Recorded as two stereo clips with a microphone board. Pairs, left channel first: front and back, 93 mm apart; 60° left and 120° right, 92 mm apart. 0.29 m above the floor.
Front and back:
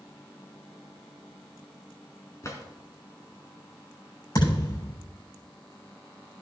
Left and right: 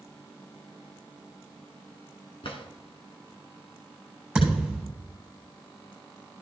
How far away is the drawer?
About 2.0 m.